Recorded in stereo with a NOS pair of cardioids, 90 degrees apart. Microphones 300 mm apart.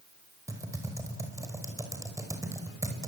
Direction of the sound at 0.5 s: 10° right.